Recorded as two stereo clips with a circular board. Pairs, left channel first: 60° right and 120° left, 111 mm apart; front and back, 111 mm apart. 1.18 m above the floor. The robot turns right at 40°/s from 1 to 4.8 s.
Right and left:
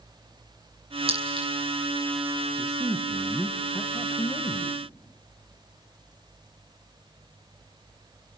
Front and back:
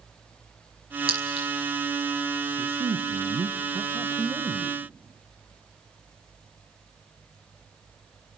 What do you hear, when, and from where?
1.1 s a clink: 145° left, 6.5 m; by 1.5 s 160° left, 6.5 m
2.6 s a man speaking: 170° left, 1.0 m; by 4.8 s 105° right, 1.0 m